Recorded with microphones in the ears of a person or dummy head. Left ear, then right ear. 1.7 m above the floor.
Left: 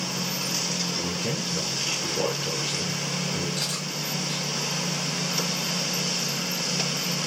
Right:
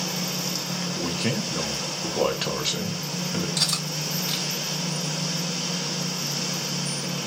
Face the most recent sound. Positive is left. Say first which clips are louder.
# right 4 dB
turn(degrees=-25)  # may be behind; listen again after turning